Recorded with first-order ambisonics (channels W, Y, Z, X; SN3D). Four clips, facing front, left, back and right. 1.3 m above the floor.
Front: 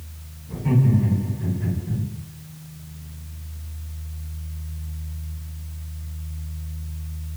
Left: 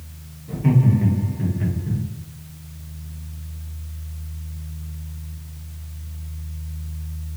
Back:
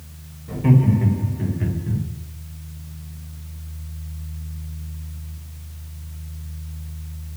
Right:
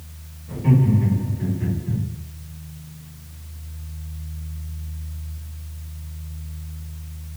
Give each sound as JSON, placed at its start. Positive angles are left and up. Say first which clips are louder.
{"t": 0.5, "sound": "laughter", "louder": "even, back 3 dB", "azimuth_deg": 165, "distance_m": 1.7}